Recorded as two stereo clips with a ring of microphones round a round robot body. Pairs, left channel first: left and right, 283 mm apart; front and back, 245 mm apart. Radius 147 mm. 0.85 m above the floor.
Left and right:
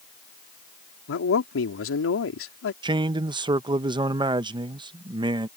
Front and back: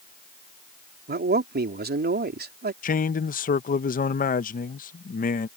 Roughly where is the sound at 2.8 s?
Ahead right.